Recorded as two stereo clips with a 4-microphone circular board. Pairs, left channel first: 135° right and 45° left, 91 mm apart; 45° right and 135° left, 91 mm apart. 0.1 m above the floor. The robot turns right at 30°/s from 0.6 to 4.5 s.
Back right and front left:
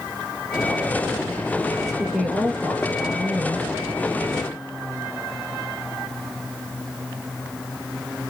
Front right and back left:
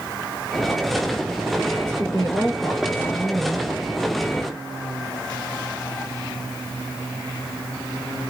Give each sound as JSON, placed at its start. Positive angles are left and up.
{"t": 1.7, "sound": "a woman speaking", "azimuth_deg": -75, "distance_m": 1.5}